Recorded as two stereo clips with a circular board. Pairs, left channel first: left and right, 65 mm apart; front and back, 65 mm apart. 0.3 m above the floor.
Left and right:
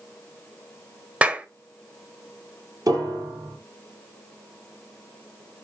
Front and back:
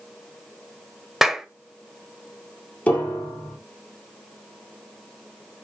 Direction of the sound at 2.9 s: 65° right.